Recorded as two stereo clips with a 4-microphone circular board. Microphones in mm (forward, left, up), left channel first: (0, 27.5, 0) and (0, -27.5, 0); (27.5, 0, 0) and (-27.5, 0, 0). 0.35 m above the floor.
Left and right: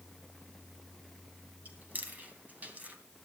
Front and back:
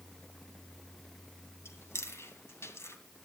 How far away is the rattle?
I don't hear a rattle.